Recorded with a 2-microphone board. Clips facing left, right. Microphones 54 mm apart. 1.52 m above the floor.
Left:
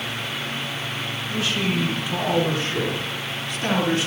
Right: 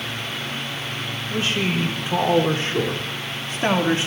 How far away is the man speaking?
About 5.5 m.